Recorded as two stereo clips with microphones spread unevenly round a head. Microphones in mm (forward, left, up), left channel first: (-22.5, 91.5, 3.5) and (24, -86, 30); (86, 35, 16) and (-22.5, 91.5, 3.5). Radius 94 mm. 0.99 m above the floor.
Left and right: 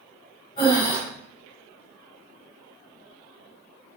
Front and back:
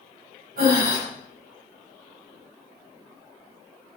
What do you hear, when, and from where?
0.6 s breathing: 170° left, 4 m